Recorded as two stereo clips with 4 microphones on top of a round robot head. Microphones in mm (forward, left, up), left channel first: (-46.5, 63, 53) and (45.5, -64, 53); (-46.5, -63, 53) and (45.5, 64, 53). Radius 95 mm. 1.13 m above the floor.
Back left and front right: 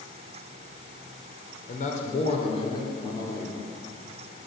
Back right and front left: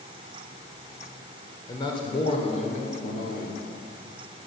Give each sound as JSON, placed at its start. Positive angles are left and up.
{"t": 1.7, "sound": "a man speaking", "azimuth_deg": 170, "distance_m": 3.5}